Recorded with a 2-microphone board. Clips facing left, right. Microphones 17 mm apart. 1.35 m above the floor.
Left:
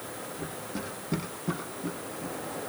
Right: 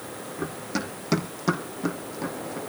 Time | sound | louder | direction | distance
0.4 | running footsteps | right 8 dB | 45° right (ahead or behind) | 4.5 m